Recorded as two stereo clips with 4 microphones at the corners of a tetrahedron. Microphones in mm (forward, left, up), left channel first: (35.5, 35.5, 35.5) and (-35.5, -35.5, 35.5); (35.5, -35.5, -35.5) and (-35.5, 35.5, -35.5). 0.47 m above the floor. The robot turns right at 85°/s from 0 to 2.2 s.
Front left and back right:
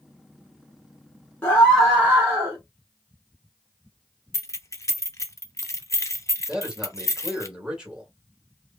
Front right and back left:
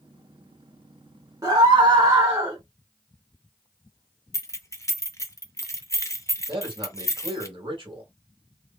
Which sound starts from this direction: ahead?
Keys jangling, at 4.3 s.